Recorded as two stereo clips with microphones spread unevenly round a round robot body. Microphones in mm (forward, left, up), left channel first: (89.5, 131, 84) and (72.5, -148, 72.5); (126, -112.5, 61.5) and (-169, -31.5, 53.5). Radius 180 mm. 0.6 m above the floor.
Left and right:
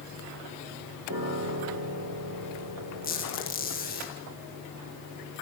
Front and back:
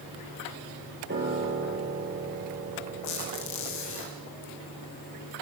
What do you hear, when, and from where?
1.1 s a piano: 140° right, 6 m
3.0 s a squeak: 30° left, 6 m